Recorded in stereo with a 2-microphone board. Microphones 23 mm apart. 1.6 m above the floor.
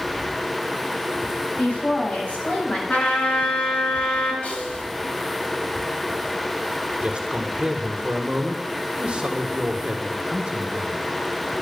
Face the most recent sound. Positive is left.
turn(degrees=-55)  # may be behind; listen again after turning